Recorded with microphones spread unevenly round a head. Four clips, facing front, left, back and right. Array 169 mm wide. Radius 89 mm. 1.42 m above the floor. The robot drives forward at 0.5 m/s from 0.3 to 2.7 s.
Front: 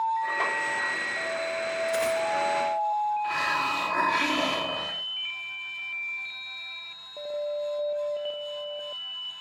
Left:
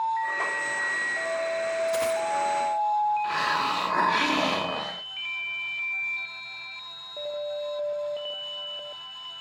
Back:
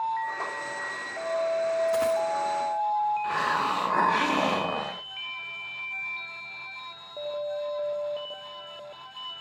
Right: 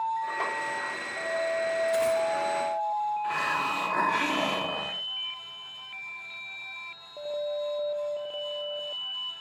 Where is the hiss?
165° left, 0.7 m.